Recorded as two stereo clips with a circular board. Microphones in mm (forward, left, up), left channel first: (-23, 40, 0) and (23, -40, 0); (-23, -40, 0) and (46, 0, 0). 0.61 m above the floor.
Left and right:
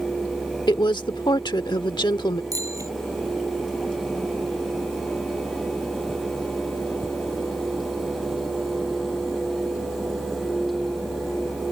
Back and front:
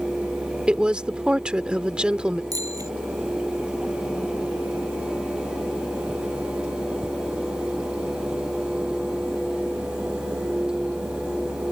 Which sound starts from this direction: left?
A woman speaking, at 0.7 s.